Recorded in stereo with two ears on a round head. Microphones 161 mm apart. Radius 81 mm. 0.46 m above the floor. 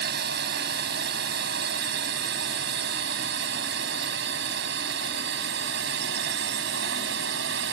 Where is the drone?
65° right (ahead or behind); by 7.7 s 70° right (ahead or behind).